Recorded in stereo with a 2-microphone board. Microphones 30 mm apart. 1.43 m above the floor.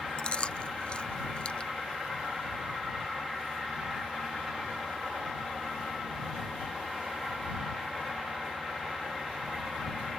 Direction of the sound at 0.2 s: 35° left (ahead or behind).